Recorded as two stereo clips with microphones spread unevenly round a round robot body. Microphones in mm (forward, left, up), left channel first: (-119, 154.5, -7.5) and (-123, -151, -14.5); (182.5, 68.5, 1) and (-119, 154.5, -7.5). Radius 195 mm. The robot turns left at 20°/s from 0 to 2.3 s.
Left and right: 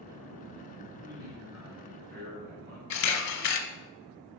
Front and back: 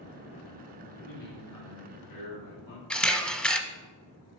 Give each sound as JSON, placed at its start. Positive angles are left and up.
{"t": 1.0, "sound": "a man speaking", "azimuth_deg": -5, "distance_m": 1.7}
{"t": 2.9, "sound": "a camera shutter", "azimuth_deg": 70, "distance_m": 0.8}